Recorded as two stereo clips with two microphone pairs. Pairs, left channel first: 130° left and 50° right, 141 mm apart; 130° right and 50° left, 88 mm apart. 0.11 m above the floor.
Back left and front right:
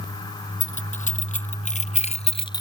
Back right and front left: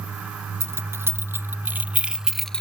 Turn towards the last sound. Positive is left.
turn(degrees=165)